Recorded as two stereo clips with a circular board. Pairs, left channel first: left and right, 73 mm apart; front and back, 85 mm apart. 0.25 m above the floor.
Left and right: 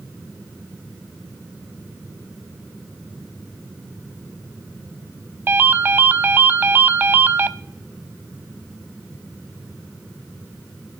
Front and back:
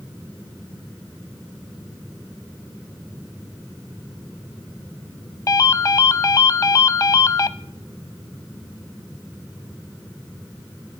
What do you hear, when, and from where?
5.5 s a ringtone: 35° right, 0.6 m